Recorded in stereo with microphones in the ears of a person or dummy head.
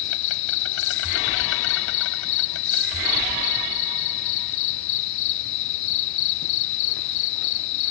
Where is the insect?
70° left (ahead or behind).